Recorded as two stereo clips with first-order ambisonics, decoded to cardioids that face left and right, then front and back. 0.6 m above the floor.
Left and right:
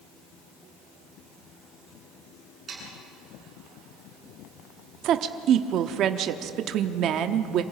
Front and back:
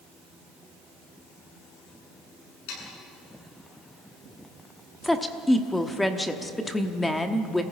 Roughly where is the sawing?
Ahead.